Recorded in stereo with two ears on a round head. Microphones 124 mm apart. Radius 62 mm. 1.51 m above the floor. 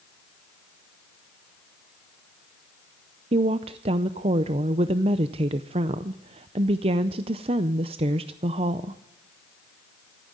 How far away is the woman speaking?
About 0.5 m.